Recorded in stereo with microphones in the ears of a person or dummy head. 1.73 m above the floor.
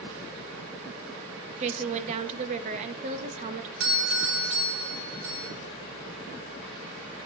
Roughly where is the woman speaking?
Right.